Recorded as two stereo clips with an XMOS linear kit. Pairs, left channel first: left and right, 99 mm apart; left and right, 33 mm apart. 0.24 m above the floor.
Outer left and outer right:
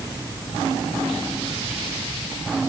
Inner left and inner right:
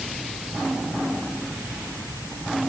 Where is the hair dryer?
I don't hear a hair dryer.